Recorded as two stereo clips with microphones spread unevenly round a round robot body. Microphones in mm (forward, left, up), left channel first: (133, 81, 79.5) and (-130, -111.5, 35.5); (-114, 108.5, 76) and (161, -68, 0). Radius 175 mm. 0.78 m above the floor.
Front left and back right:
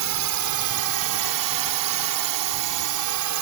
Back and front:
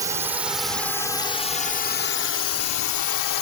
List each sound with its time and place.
0.0 s a drone: 110° right; by 3.4 s 175° right